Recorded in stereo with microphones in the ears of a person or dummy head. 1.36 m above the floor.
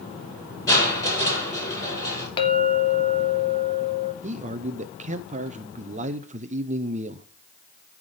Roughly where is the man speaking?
Right.